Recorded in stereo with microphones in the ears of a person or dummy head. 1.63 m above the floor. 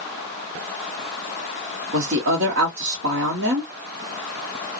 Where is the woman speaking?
55° right (ahead or behind), 0.8 m.